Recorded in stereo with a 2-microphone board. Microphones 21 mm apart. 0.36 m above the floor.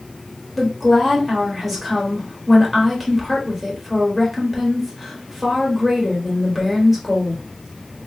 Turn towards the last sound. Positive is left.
turn(degrees=0)  # may be behind; listen again after turning